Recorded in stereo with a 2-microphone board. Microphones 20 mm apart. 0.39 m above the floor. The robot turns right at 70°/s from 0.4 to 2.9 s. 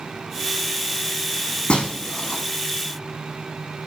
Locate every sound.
1.7 s breaking glass: 65° left (ahead or behind), 1.6 m; by 2.4 s 60° left (ahead or behind), 1.6 m